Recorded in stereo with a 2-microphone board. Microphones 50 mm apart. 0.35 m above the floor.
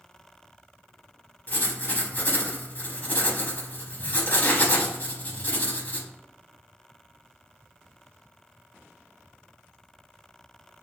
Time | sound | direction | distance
1.5 | writing | 35° left (ahead or behind) | 0.6 m